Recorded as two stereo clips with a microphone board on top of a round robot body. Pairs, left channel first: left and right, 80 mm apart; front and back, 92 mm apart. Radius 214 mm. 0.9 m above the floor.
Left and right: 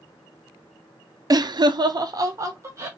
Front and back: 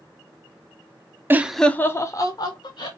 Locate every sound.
1.3 s laughter: 115° right, 0.6 m; by 2.9 s 35° right, 1.3 m